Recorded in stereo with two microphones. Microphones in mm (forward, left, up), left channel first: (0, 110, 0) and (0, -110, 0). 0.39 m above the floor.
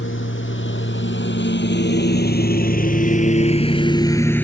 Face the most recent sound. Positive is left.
turn(degrees=5)  # may be behind; listen again after turning